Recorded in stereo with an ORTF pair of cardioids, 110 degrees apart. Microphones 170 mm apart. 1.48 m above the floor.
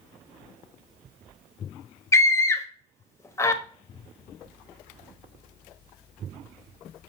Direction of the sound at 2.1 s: 15° left.